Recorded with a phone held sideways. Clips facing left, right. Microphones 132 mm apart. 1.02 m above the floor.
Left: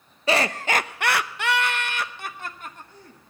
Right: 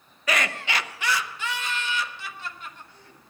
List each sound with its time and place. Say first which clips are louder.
0.3 s laughter: left 5 dB; 30° left (ahead or behind), 0.7 m; by 3.2 s 40° left (ahead or behind), 1.4 m